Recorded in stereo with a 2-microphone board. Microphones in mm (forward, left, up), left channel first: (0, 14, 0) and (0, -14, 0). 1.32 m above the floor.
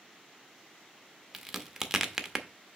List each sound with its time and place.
1.3 s a crack: 10° right (ahead or behind), 0.7 m